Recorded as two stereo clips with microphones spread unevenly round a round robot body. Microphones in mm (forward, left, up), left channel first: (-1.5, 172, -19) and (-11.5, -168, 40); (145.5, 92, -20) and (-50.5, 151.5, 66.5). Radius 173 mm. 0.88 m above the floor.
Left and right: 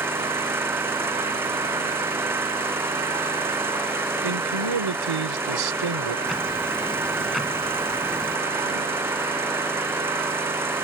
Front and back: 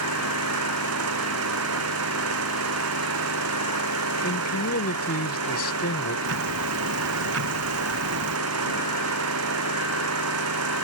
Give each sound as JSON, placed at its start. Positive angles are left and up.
{"t": 0.0, "sound": "an engine running", "azimuth_deg": -175}
{"t": 4.2, "sound": "a man speaking", "azimuth_deg": -65}
{"t": 6.3, "sound": "ticking", "azimuth_deg": 180}